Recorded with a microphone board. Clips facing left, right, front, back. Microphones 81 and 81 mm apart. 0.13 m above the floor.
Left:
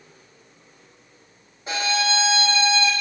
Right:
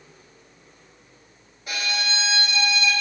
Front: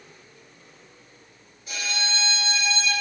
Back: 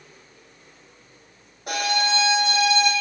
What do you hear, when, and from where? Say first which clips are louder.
1.7 s a violin: left 6 dB, back 8 dB; 155° left, 1.2 m